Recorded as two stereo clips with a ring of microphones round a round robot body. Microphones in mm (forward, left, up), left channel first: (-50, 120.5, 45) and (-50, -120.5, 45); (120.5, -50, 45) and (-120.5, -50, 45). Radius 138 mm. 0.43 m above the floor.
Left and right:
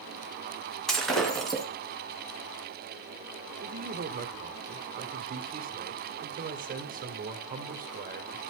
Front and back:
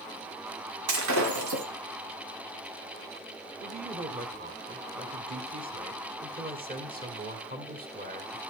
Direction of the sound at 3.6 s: 135° right.